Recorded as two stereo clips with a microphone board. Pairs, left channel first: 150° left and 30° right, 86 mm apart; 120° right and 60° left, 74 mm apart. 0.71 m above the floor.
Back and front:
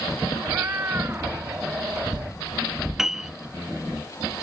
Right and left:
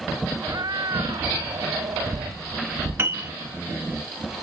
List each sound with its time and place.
0.4 s a cat meowing: 30° left; by 2.4 s 35° left
3.0 s a piano: 50° left